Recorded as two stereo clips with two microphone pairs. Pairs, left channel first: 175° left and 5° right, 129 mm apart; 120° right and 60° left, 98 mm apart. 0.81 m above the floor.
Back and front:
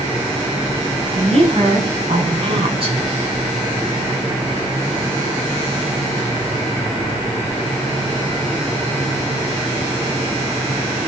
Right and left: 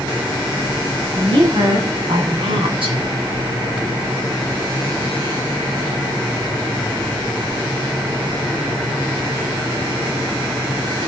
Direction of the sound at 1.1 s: 30° left.